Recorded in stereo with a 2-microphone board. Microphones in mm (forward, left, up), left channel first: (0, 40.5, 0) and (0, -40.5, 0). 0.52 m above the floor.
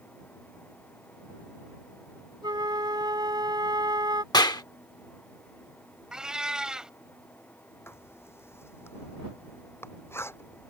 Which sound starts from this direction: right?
A flute, at 2.4 s.